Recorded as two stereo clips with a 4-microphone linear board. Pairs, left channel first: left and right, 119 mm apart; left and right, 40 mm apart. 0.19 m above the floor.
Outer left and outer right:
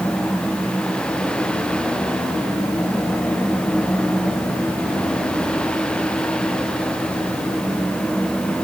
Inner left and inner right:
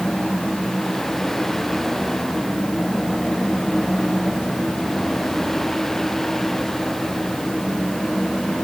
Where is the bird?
I don't hear a bird.